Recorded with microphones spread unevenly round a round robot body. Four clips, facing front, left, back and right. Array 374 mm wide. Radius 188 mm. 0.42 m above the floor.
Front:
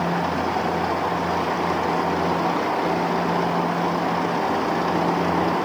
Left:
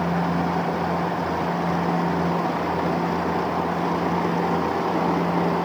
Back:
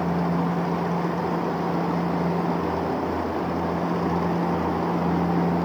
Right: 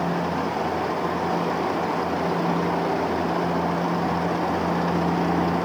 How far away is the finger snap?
No finger snap in this recording.